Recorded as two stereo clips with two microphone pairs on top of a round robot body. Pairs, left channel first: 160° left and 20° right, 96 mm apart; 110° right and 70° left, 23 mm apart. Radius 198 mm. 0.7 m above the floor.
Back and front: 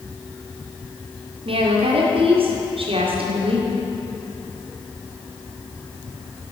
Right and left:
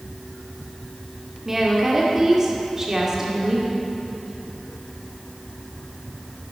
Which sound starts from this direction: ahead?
A woman speaking, at 1.4 s.